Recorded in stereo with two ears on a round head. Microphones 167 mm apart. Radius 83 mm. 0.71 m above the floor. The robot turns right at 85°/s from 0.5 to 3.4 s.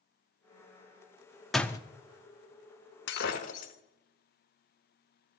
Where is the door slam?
Centre (ahead or behind), 0.6 m; by 1.8 s 20° left (ahead or behind), 0.6 m.